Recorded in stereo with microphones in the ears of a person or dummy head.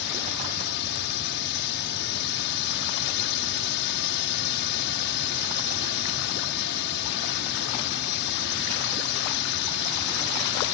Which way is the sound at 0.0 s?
55° left (ahead or behind).